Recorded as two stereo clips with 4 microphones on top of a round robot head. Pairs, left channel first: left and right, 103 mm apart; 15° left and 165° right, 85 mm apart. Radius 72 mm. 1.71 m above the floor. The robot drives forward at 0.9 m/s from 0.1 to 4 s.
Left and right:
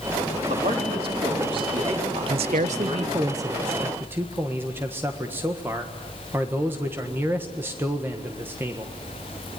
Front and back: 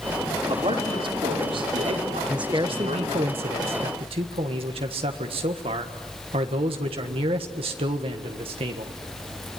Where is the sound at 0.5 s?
125° right, 4 m; by 3.3 s 145° right, 6 m.